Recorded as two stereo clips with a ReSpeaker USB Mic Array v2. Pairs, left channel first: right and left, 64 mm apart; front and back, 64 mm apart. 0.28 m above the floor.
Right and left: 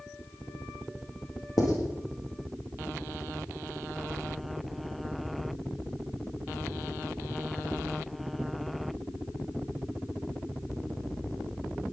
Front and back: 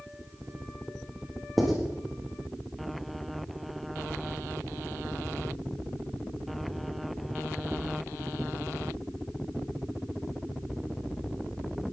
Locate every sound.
1.6 s writing: 90° right, 5 m